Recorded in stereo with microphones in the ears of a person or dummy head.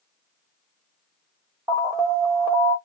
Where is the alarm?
15° right (ahead or behind), 1.2 m.